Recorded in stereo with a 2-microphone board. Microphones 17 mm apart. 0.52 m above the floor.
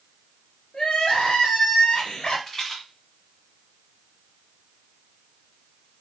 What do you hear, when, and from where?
0.7 s crying: 75° left (ahead or behind), 1.7 m
2.5 s a rattle: 25° left (ahead or behind), 2 m